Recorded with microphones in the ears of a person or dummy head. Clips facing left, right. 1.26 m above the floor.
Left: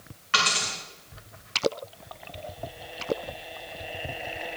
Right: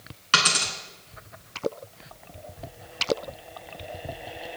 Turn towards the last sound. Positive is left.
turn(degrees=-55)  # may be behind; listen again after turning